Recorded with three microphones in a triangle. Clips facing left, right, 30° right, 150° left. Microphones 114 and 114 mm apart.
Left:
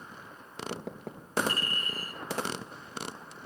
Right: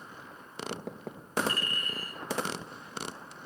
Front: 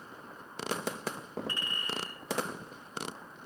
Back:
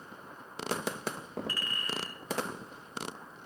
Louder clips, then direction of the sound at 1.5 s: Left 1 dB, even; 35° left.